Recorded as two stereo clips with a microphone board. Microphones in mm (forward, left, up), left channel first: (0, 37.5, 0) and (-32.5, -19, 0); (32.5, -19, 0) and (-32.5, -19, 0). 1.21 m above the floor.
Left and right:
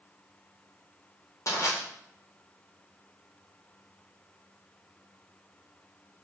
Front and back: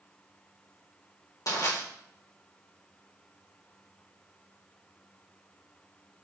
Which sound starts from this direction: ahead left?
Crushing, at 1.5 s.